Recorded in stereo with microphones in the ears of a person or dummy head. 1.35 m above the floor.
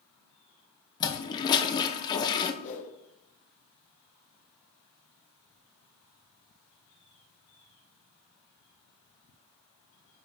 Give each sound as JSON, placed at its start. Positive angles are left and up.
{"t": 1.0, "sound": "a toilet flushing", "side_deg": 20, "distance_m": 0.6}
{"t": 2.6, "sound": "a whoosh", "side_deg": 40, "distance_m": 1.0}